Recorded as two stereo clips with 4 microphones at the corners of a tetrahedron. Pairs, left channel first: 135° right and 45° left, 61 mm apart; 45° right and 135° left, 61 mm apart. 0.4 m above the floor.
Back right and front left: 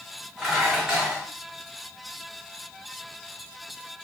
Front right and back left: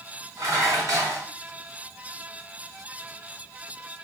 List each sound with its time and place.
0.4 s dishes clattering: 125° left, 1.6 m